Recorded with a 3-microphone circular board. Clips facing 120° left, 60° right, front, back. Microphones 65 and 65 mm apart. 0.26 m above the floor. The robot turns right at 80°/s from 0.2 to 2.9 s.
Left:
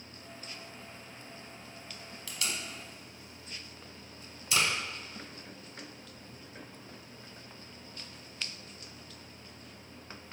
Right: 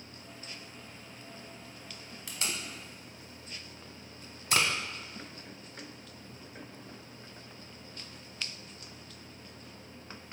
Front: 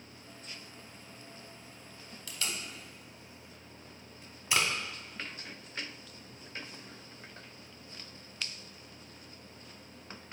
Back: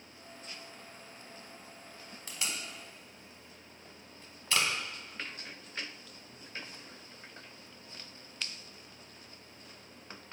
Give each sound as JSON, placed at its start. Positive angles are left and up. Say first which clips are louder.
{"t": 2.3, "sound": "tape being pulled", "louder": "even, even", "azimuth_deg": -125, "distance_m": 0.6}